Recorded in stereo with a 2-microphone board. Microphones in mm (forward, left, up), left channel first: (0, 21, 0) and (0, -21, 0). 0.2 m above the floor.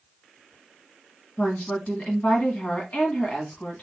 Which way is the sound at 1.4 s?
35° left (ahead or behind).